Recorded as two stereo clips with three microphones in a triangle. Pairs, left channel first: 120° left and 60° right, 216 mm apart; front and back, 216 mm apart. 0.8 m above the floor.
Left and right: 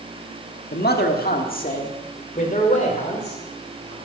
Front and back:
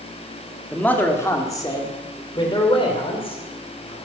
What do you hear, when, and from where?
0.7 s a man speaking: 85° left, 1.5 m; by 4.0 s 60° left, 3.5 m